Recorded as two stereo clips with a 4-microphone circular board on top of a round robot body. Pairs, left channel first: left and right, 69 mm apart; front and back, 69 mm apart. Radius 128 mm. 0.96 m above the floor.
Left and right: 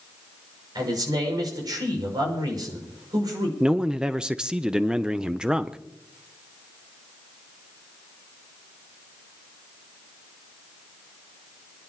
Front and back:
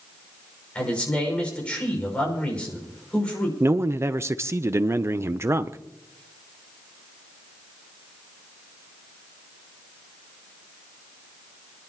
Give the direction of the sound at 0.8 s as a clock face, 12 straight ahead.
2 o'clock.